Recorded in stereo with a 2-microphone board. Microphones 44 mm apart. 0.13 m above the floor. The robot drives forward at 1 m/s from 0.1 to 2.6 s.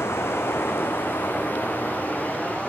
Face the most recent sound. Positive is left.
turn(degrees=30)  # may be behind; listen again after turning